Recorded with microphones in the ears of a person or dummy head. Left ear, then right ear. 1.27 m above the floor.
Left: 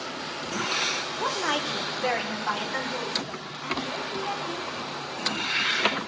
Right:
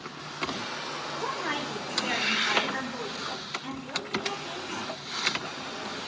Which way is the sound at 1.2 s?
75° left (ahead or behind).